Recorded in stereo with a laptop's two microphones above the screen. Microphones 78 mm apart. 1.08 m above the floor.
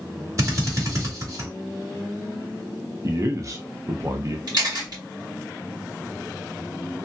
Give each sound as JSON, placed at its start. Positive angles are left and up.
{"t": 0.4, "sound": "a drill", "side_deg": -45, "distance_m": 1.2}
{"t": 3.0, "sound": "a man speaking", "side_deg": -40, "distance_m": 0.7}
{"t": 4.5, "sound": "a camera shutter", "side_deg": -60, "distance_m": 2.0}